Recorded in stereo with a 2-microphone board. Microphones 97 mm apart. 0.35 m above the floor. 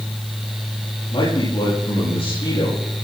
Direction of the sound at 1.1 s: 70° left (ahead or behind).